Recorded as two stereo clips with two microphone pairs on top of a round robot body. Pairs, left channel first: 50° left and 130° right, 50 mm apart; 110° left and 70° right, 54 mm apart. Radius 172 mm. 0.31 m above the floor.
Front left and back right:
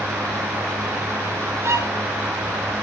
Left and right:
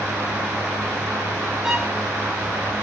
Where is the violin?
145° right, 2.5 m.